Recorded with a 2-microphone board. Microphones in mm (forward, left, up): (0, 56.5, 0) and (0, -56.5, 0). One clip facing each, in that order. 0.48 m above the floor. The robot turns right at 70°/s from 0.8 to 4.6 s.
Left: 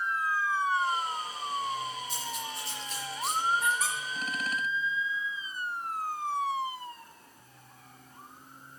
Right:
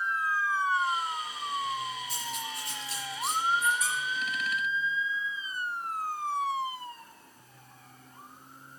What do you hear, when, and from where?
2.1 s cutlery clinking: 85° right, 4.5 m; by 3.4 s 5° right (ahead or behind), 4.5 m
3.6 s a squeak: 75° left (ahead or behind), 3 m; by 4.0 s 55° left (ahead or behind), 3 m